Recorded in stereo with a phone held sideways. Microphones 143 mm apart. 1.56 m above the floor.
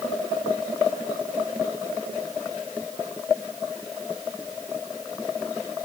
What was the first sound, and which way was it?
Only background noise.